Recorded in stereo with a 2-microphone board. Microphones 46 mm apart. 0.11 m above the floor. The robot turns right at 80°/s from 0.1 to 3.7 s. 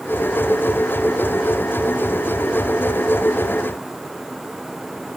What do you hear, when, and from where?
Only background noise.